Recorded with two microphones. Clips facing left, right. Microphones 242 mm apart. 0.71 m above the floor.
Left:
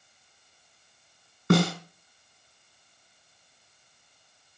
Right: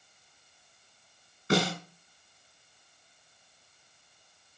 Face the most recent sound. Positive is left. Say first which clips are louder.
# left 4 dB
turn(degrees=60)  # may be behind; listen again after turning